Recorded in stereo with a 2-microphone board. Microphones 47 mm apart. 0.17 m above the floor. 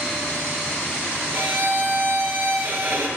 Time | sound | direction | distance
1.3 | a violin | 45° right (ahead or behind) | 1.6 m